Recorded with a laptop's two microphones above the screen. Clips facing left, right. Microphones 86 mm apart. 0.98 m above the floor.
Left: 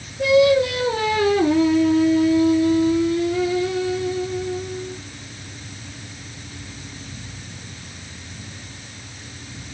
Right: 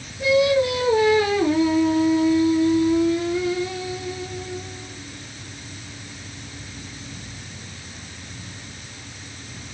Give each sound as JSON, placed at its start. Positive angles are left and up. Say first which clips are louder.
{"t": 0.2, "sound": "singing", "louder": "left 3 dB", "side_deg": 75, "distance_m": 2.5}